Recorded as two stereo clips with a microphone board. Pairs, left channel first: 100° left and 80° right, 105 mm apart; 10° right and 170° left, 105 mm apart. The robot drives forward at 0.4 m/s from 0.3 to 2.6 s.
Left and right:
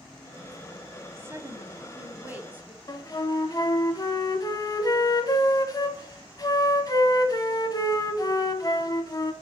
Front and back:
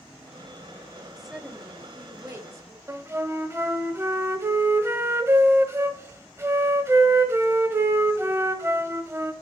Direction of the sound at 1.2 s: 105° right.